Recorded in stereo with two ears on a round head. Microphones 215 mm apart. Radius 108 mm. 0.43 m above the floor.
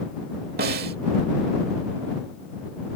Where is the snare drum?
40° right (ahead or behind).